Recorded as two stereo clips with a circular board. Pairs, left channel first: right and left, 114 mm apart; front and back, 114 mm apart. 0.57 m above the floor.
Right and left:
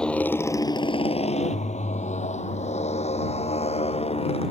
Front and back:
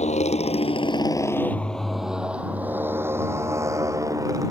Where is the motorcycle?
5° right; by 4.5 s 120° right.